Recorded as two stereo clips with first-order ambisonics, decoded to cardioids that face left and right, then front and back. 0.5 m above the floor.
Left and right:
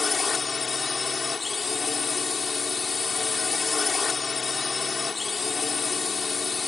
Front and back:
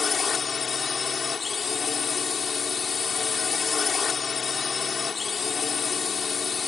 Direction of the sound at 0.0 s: 40° left.